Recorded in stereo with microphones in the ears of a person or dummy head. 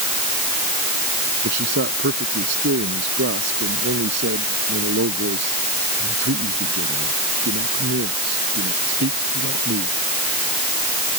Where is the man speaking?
65° right (ahead or behind).